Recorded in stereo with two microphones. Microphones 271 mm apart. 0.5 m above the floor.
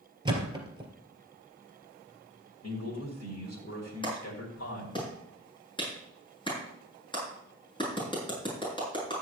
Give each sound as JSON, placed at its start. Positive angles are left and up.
{"t": 0.2, "sound": "a thud", "side_deg": -15, "distance_m": 2.5}
{"t": 2.6, "sound": "a man speaking", "side_deg": 65, "distance_m": 2.5}
{"t": 4.0, "sound": "a clap", "side_deg": 20, "distance_m": 6.0}